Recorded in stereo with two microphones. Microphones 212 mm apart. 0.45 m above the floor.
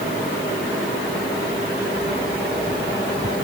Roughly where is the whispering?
No whispering in this recording.